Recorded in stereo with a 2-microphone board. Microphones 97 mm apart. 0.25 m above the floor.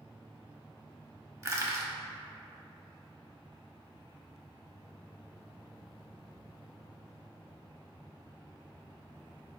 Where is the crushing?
30° right (ahead or behind), 0.7 m.